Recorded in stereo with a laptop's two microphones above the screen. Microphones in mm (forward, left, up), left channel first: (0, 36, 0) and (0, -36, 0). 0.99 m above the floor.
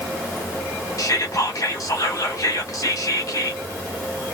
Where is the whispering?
55° left (ahead or behind), 1.1 m.